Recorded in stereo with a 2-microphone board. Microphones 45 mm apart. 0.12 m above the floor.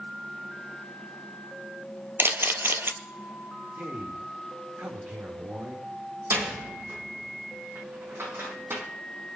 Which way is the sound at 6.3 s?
70° right (ahead or behind).